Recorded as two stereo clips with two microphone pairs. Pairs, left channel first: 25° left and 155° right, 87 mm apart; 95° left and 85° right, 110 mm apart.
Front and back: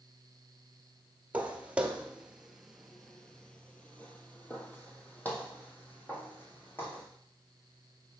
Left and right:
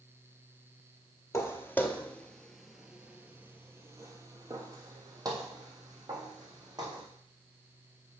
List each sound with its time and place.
1.3 s footsteps: 145° left, 1.1 m; by 7.0 s 40° right, 2.5 m